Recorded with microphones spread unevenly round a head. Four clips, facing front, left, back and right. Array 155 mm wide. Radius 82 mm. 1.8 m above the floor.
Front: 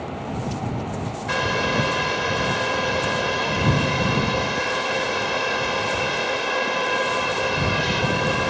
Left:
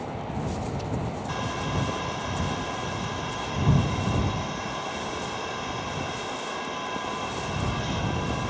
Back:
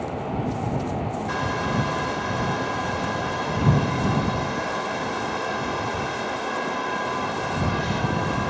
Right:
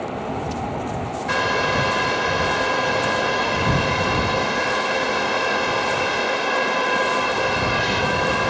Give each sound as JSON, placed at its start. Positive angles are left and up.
{"t": 1.3, "sound": "a hair dryer", "azimuth_deg": -60}